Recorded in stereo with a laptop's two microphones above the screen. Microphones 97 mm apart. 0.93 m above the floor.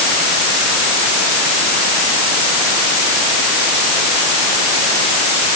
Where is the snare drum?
I don't hear a snare drum.